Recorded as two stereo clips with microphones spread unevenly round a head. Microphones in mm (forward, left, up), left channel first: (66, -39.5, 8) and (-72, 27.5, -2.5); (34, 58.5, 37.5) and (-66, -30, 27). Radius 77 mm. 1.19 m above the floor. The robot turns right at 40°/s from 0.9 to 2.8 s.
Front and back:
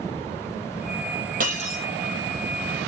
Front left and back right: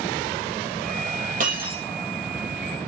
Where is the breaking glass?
165° right, 4 m; by 1.8 s 150° right, 4 m.